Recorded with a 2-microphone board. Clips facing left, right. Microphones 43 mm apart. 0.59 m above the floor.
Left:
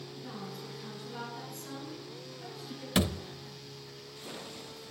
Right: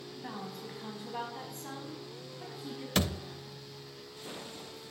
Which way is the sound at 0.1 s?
45° right (ahead or behind).